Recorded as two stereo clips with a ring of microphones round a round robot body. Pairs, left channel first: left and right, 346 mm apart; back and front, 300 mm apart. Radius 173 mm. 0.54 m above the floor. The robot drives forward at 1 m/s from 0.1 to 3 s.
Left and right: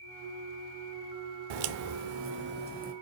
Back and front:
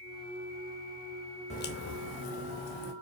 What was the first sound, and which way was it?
A crack, 105° right.